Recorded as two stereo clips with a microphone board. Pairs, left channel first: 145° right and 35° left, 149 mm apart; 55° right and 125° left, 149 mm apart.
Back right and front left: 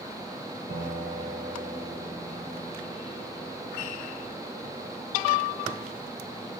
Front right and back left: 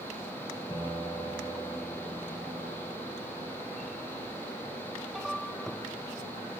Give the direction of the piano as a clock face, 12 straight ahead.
12 o'clock.